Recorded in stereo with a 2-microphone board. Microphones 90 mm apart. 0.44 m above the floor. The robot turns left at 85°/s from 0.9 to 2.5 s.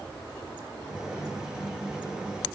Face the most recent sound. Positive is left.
No sound to turn to.